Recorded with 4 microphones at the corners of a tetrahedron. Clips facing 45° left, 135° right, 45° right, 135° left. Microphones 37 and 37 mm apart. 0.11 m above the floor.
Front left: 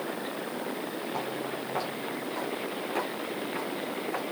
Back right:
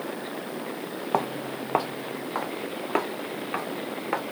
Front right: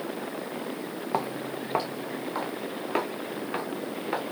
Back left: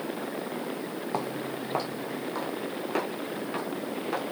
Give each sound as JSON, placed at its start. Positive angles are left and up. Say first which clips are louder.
{"t": 1.1, "sound": "footsteps", "louder": "back right 9 dB, front right 3 dB", "azimuth_deg": -120, "distance_m": 0.7}